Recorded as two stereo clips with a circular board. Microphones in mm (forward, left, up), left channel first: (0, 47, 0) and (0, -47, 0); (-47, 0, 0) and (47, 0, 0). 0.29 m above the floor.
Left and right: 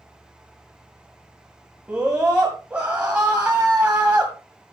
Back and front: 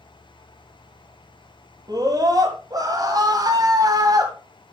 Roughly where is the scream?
Ahead.